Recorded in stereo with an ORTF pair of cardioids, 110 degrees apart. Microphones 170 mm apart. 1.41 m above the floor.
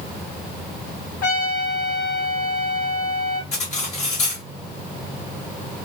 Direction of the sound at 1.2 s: 55° left.